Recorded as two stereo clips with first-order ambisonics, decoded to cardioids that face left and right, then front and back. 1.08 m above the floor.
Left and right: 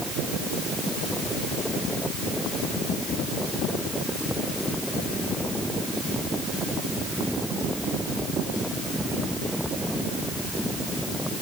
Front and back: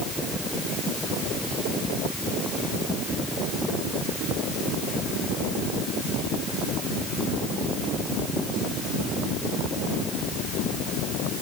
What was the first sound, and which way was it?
Only background noise.